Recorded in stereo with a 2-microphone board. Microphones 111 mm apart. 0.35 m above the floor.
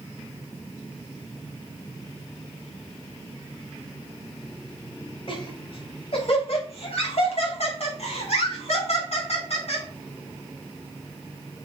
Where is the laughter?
50° left (ahead or behind), 2.5 m; by 9.8 s 70° left (ahead or behind), 4.5 m.